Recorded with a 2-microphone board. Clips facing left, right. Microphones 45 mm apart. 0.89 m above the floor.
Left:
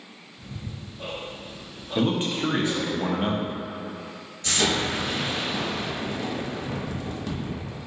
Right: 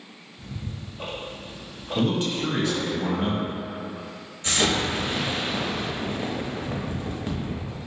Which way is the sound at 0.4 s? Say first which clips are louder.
Right 2 dB; 60° right (ahead or behind).